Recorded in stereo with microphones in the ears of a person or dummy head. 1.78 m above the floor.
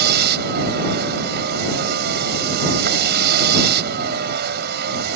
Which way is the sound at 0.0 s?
70° right (ahead or behind).